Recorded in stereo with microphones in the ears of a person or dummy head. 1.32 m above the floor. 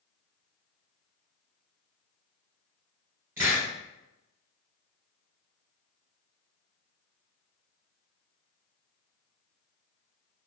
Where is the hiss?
15° right (ahead or behind), 1.2 m.